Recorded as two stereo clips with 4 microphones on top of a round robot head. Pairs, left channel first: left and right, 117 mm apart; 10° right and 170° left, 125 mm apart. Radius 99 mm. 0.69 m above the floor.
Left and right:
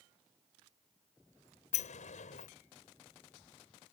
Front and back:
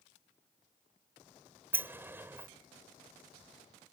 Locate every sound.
1.7 s a sliding door: 100° left